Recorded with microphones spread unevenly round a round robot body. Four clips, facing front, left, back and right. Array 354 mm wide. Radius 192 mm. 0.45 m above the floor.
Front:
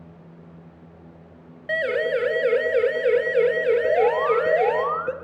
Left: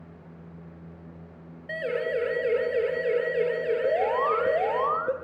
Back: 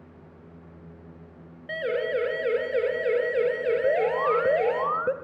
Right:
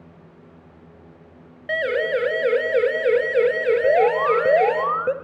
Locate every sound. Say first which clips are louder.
1.7 s a siren: right 6 dB, front 4 dB; 55° right, 6.5 m; by 4.8 s 70° right, 8.5 m
3.8 s an alarm: right 7 dB, front 4 dB; 130° right, 1.9 m